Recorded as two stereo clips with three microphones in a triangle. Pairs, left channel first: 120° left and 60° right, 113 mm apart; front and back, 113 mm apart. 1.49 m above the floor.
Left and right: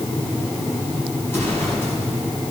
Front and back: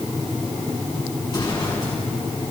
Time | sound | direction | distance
1.2 | an explosion | 50° left | 8 m